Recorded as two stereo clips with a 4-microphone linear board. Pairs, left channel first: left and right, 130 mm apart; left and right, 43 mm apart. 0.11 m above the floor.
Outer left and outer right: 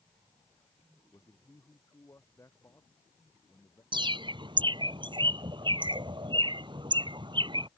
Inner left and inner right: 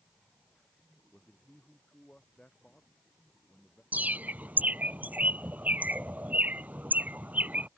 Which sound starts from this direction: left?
A man speaking, at 1.1 s.